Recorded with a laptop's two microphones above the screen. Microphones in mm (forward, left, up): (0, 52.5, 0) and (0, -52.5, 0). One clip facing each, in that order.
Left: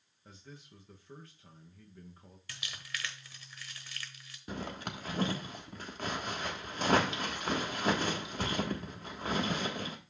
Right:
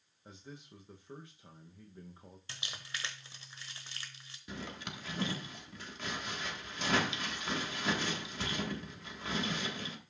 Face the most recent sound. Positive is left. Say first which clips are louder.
# left 4 dB
turn(degrees=45)  # may be behind; listen again after turning